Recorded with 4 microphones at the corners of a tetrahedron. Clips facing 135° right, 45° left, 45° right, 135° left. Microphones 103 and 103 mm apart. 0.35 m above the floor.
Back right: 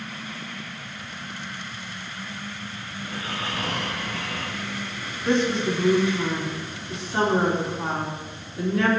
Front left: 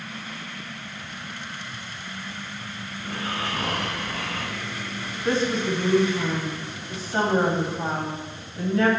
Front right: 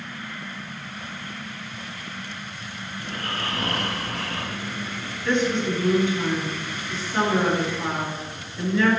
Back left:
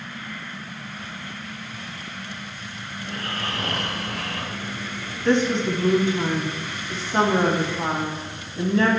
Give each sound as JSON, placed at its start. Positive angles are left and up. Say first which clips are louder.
{"t": 3.0, "sound": "snoring", "louder": "front left 2 dB, even", "azimuth_deg": 10, "distance_m": 1.4}
{"t": 5.2, "sound": "a woman speaking", "louder": "back right 1 dB, back left 2 dB", "azimuth_deg": 95, "distance_m": 2.0}